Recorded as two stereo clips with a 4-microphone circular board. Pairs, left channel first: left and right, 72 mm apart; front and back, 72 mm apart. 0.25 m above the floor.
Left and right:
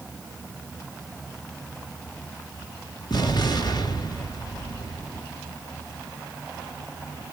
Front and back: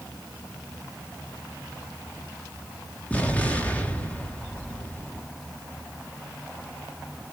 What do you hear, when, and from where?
3.1 s an explosion: 70° left, 3 m